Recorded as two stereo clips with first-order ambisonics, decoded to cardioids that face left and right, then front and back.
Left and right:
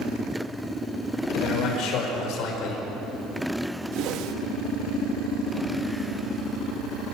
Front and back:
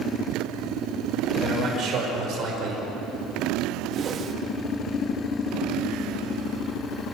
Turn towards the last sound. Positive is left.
turn(degrees=-120)